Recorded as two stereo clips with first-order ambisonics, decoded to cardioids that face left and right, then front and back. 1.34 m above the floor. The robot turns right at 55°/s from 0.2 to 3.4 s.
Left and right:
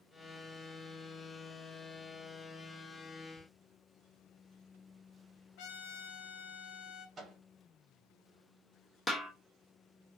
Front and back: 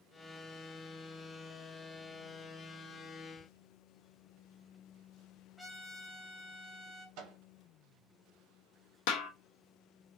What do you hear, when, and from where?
3.4 s ticking: 80° left, 0.9 m
5.6 s a trumpet: 85° left, 0.6 m
7.2 s a microwave: 155° right, 0.9 m
9.1 s a snare drum: 5° left, 0.5 m